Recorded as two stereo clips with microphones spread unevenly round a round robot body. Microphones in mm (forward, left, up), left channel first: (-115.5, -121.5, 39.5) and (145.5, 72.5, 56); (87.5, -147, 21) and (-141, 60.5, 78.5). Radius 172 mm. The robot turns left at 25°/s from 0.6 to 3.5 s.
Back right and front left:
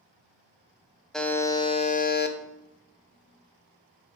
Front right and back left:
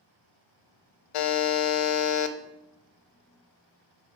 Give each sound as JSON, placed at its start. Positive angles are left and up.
{"t": 1.1, "sound": "a buzzer", "azimuth_deg": -55, "distance_m": 0.7}